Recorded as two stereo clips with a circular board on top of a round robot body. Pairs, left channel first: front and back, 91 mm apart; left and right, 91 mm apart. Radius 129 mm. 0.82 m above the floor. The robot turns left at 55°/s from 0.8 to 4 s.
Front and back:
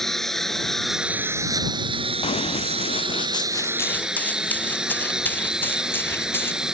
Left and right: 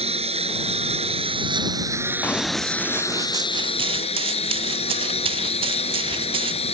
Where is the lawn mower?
85° right; by 6.8 s 100° left.